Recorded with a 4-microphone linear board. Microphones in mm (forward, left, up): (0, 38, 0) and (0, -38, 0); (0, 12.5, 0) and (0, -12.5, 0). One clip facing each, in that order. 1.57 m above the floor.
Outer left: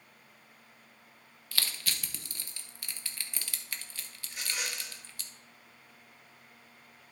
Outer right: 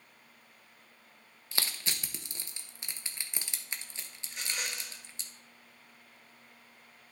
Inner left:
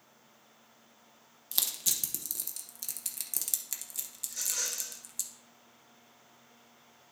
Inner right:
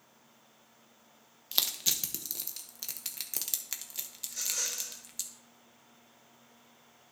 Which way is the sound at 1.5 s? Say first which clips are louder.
Even, inner right 3 dB; 25° right (ahead or behind).